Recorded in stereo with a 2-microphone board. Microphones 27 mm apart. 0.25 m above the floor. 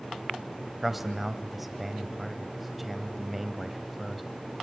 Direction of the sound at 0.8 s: Centre (ahead or behind).